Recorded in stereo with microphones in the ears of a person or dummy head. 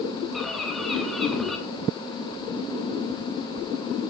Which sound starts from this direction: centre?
A bird, at 0.3 s.